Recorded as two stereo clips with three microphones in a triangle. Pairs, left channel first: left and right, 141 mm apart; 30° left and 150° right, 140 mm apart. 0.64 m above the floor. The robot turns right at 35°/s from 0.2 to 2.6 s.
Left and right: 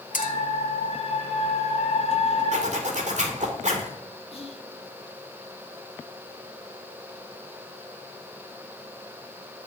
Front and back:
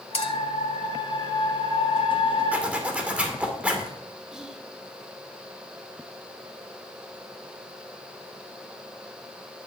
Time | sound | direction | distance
0.1 | a clink | 75° left | 1.6 m
2.5 | a zipper | 75° right | 2 m
4.3 | whispering | 125° left | 1.6 m